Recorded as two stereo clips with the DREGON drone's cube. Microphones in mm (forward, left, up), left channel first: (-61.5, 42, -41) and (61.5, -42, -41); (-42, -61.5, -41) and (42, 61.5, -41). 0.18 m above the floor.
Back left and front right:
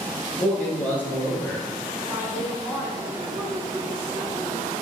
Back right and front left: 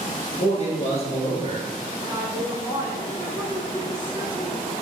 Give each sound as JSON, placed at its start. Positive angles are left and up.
{"t": 0.4, "sound": "a man speaking", "azimuth_deg": -140, "distance_m": 1.5}
{"t": 2.0, "sound": "a woman speaking", "azimuth_deg": 30, "distance_m": 1.0}